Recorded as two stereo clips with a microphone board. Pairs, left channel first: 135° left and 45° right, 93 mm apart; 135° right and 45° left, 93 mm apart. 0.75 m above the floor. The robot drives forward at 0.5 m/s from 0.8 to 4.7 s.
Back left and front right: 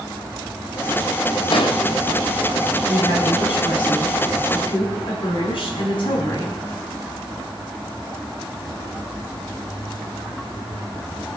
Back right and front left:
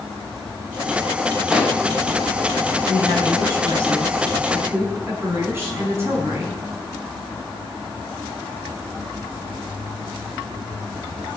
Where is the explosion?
125° left, 1.8 m.